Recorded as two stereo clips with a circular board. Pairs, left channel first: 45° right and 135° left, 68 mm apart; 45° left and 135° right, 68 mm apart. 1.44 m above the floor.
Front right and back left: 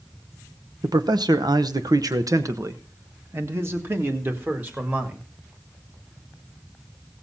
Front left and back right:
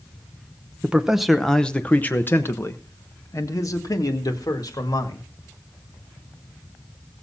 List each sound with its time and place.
0.8 s a man speaking: 150° left, 0.8 m; by 5.3 s 70° left, 2.5 m